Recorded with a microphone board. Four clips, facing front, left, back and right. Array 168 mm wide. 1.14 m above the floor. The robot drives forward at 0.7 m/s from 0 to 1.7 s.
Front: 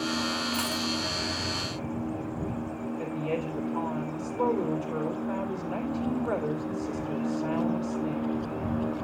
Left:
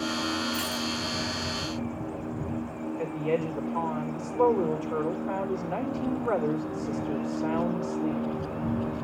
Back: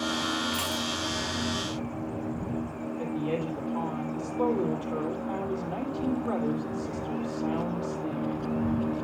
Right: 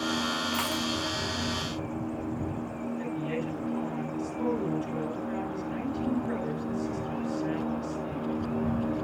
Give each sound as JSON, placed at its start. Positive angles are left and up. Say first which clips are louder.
{"t": 0.5, "sound": "a dropped coin", "louder": "right 1 dB, front 1 dB", "azimuth_deg": -90, "distance_m": 2.5}
{"t": 3.0, "sound": "a woman speaking", "louder": "left 6 dB, back 2 dB", "azimuth_deg": 110, "distance_m": 3.0}